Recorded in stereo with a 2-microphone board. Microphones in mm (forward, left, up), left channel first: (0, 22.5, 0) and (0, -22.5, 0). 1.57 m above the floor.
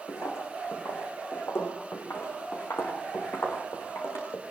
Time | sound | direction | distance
0.1 | footsteps | 70° left (ahead or behind) | 5 m